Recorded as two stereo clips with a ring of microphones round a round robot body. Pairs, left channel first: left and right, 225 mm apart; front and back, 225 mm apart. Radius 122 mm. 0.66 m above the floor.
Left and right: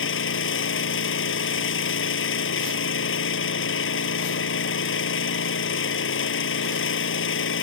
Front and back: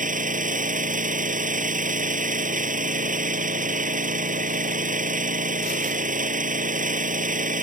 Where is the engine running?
125° left.